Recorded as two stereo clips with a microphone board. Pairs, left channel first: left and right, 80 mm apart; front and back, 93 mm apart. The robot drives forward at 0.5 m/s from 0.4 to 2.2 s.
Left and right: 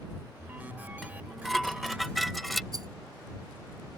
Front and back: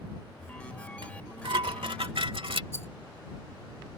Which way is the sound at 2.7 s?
60° right.